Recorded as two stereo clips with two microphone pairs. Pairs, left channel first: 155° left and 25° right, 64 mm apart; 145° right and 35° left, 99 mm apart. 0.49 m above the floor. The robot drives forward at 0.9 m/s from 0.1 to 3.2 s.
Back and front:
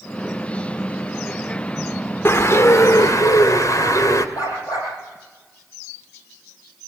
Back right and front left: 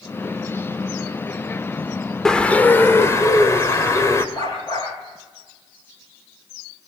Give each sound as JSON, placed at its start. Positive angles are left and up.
{"t": 2.2, "sound": "a bird", "azimuth_deg": 130, "distance_m": 1.1}
{"t": 4.3, "sound": "a dog barking", "azimuth_deg": 170, "distance_m": 9.0}